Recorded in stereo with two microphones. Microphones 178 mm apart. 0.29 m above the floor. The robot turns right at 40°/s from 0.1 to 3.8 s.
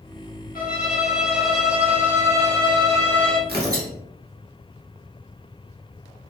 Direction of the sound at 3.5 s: 55° right (ahead or behind).